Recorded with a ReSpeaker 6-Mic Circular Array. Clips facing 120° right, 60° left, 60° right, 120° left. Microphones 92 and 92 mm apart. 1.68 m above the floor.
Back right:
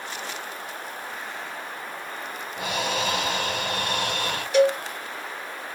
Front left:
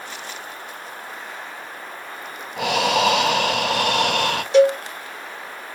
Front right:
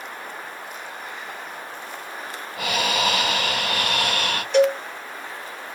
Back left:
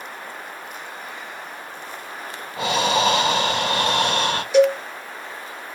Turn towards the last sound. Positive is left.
turn(degrees=50)